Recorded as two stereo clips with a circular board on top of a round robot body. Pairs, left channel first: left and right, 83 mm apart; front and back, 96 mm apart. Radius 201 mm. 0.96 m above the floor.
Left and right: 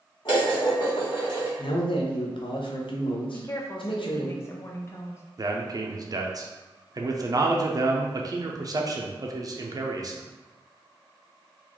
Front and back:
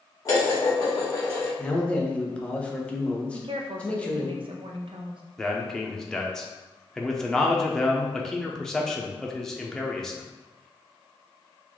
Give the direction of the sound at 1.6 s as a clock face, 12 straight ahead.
9 o'clock.